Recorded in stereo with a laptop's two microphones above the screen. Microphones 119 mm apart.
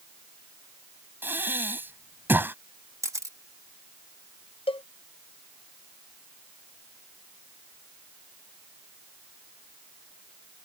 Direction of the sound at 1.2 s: 15° right (ahead or behind).